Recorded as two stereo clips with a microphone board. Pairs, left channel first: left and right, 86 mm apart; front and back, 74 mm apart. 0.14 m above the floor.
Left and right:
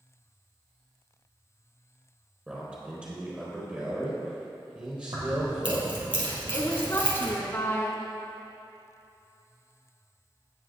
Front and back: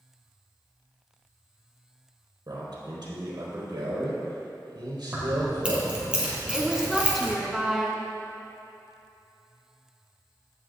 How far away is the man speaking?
About 4 m.